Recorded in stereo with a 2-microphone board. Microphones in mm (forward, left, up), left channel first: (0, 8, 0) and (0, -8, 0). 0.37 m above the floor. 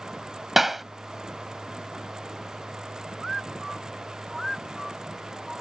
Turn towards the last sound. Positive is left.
turn(degrees=-25)  # may be behind; listen again after turning